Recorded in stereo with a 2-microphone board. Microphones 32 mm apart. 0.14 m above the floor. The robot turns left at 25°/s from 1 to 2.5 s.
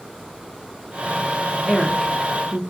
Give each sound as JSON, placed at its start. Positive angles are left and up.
{"t": 1.7, "sound": "a woman speaking", "side_deg": 5, "distance_m": 1.1}